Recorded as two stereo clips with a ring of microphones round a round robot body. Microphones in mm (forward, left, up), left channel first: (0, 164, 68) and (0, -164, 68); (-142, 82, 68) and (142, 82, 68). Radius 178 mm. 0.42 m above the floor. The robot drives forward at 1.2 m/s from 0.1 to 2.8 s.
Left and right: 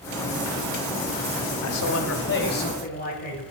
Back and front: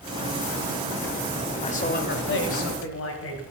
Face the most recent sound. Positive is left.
turn(degrees=150)